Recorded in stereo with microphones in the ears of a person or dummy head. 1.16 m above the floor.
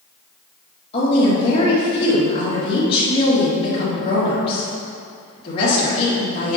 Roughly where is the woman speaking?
Left.